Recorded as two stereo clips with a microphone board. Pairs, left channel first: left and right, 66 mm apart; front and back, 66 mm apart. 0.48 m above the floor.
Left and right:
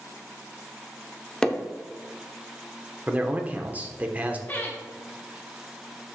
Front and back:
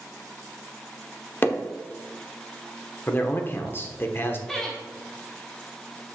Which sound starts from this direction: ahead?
Hammering, at 1.4 s.